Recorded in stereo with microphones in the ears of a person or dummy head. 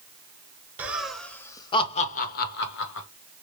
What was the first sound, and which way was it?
Laughter, 10° right (ahead or behind).